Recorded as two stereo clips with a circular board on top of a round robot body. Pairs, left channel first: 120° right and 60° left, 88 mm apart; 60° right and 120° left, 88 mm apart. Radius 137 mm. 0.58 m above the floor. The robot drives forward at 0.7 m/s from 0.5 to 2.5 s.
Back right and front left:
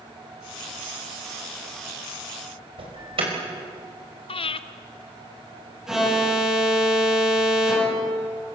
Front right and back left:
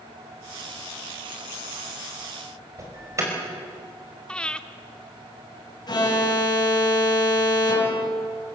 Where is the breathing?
140° right, 0.6 m.